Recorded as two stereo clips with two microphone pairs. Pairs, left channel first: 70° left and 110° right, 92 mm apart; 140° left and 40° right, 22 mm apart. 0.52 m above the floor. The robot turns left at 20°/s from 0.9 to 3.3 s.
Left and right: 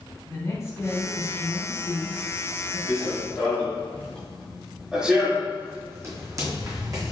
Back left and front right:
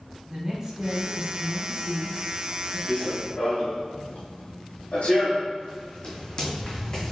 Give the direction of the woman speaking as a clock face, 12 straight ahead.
11 o'clock.